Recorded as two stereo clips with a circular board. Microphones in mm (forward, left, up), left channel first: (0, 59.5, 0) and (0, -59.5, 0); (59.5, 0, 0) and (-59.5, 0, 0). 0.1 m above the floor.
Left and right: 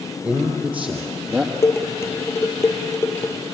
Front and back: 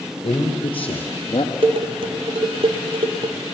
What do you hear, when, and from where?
0.2 s a man speaking: 20° right, 2.5 m; by 1.5 s 15° right, 1.8 m
1.6 s dishes clattering: 155° left, 1.8 m